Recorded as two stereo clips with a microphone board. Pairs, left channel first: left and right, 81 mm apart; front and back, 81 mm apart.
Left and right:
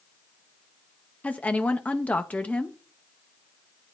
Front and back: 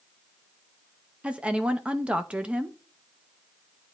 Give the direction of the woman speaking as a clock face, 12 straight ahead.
8 o'clock.